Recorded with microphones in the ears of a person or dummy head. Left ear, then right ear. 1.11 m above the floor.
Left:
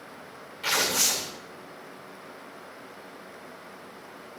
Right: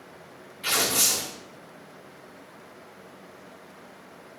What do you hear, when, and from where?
0.6 s tearing paper: 40° left (ahead or behind), 1.6 m